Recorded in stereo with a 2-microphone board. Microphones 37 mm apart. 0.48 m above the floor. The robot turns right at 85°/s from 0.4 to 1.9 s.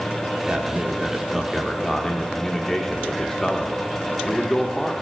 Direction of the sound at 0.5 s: 25° right (ahead or behind).